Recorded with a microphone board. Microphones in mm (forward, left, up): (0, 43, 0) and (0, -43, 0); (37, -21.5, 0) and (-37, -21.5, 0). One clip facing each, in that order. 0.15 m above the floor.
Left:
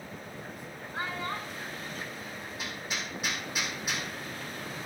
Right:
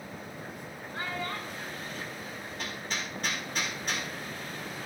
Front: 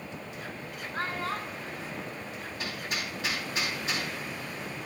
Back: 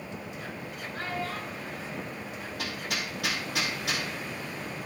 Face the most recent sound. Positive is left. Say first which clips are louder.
# right 1 dB, back 1 dB
turn(degrees=170)